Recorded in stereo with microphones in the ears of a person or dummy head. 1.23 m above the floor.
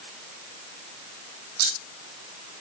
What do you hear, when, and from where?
1.6 s scissors: 70° right (ahead or behind), 5.5 m